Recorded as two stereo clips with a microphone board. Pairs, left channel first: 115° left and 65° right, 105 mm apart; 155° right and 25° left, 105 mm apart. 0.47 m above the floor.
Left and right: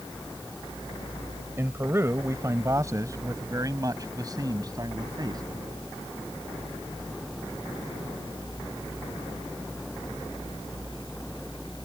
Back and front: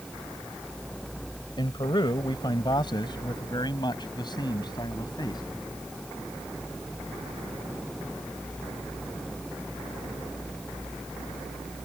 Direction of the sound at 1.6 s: 130° right.